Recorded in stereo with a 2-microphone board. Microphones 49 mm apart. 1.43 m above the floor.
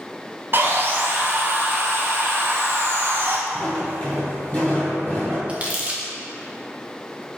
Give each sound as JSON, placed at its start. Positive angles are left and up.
{"t": 0.5, "sound": "sawing", "side_deg": -45, "distance_m": 0.6}
{"t": 3.5, "sound": "footsteps", "side_deg": 35, "distance_m": 1.8}
{"t": 5.5, "sound": "crumpling", "side_deg": -25, "distance_m": 0.7}